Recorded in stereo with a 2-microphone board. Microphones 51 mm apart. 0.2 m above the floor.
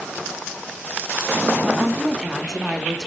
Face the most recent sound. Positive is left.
turn(degrees=0)  # may be behind; listen again after turning